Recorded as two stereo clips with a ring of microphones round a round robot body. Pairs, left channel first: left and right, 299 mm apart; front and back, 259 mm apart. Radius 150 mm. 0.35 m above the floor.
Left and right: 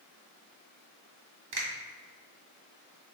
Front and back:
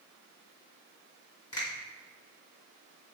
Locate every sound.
1.5 s a finger snap: 75° right, 1.6 m